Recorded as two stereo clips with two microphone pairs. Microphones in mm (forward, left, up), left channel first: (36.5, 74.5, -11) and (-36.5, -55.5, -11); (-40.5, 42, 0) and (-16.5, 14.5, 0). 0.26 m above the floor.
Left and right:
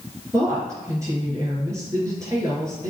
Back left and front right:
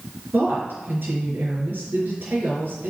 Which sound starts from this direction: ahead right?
A woman speaking, at 0.3 s.